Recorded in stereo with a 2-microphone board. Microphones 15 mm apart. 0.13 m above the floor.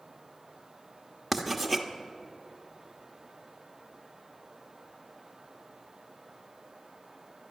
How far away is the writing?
About 1.1 m.